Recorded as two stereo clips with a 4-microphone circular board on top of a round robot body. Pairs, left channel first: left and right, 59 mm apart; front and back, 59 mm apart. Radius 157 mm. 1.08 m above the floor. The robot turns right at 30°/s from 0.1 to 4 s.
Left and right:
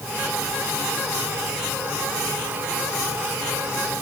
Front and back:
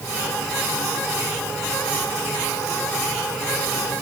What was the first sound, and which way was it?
Only background noise.